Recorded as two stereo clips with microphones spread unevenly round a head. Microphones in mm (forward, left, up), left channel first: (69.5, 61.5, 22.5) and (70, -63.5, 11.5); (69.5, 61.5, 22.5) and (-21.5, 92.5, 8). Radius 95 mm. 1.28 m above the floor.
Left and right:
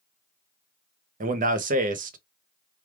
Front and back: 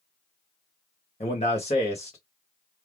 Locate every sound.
1.2 s a man speaking: 80° right, 0.8 m